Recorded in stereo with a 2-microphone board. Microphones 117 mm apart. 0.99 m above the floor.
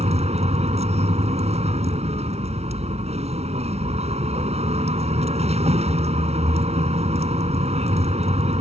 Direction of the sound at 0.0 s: 70° right (ahead or behind).